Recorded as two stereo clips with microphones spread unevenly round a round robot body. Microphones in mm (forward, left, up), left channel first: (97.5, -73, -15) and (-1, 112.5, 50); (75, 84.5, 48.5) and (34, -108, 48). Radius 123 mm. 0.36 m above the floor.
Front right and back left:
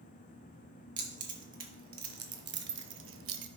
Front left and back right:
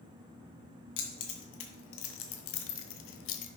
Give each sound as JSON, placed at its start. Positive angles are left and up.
{"t": 1.0, "sound": "keys jangling", "azimuth_deg": 60, "distance_m": 2.5}